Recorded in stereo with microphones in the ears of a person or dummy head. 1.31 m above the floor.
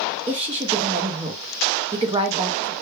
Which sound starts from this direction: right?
A woman speaking, at 0.3 s.